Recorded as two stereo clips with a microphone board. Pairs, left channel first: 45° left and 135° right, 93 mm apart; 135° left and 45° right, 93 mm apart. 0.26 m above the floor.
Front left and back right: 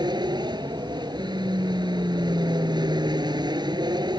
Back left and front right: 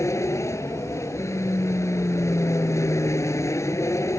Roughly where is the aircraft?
Behind.